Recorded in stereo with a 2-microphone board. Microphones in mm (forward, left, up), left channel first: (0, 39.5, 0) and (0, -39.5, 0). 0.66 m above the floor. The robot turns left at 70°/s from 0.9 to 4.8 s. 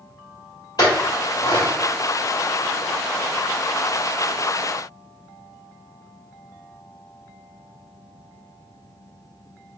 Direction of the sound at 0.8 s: 55° left (ahead or behind).